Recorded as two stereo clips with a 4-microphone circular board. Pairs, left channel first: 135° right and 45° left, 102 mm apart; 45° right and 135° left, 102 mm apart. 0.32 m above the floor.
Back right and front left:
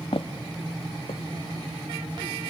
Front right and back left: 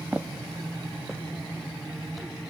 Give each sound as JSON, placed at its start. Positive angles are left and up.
{"t": 0.1, "sound": "footsteps", "azimuth_deg": -150, "distance_m": 0.6}